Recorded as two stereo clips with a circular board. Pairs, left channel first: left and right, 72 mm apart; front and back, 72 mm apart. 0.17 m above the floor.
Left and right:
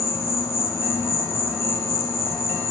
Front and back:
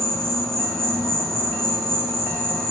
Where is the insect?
85° left, 3 m.